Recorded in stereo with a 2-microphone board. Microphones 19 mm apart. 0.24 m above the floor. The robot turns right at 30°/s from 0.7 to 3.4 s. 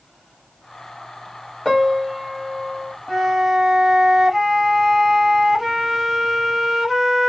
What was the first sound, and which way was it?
A piano, straight ahead.